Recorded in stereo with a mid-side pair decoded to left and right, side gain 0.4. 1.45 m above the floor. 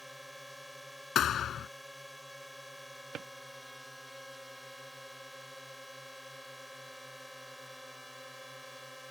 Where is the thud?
70° left.